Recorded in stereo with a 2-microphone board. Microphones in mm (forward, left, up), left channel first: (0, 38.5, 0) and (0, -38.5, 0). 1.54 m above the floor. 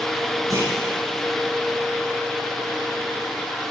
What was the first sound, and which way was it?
A clunk, 55° right (ahead or behind).